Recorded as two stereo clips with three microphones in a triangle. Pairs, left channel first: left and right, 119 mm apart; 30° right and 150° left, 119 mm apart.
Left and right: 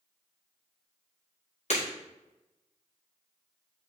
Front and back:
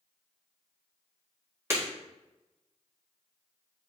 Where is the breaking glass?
80° left, 4.5 m.